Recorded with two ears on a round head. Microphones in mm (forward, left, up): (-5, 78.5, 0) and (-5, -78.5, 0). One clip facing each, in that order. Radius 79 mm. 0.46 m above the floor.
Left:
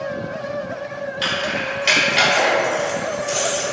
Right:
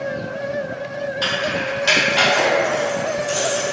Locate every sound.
1.2 s keys jangling: 20° left (ahead or behind), 0.9 m